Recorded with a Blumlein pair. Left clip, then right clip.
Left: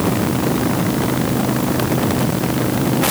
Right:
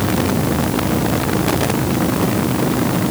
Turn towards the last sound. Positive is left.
No sound to turn to.